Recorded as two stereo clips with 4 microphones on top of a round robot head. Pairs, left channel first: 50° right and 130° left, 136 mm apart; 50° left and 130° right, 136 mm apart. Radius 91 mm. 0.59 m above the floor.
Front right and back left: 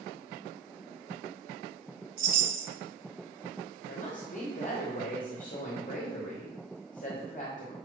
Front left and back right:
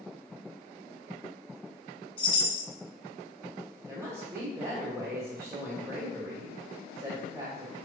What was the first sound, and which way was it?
A chime, 105° left.